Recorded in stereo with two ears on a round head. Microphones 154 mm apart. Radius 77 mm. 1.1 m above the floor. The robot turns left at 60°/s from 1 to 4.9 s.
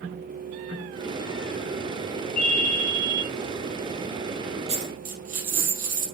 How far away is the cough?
I don't hear a cough.